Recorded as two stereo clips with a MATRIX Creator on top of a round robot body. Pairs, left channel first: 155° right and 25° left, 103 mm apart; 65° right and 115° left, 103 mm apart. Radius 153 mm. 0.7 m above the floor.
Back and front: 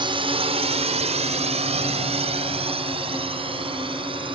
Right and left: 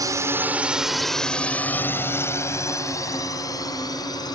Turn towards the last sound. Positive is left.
turn(degrees=-15)